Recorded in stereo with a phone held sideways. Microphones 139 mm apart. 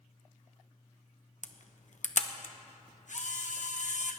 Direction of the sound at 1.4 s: 65° left (ahead or behind).